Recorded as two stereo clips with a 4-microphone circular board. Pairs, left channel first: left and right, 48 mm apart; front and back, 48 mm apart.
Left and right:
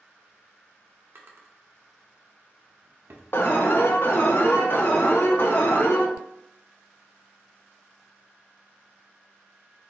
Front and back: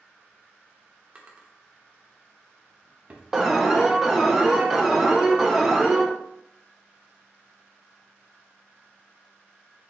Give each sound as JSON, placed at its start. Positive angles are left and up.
{"t": 1.1, "sound": "a drawer", "azimuth_deg": -120, "distance_m": 0.6}
{"t": 3.3, "sound": "an alarm", "azimuth_deg": 100, "distance_m": 0.6}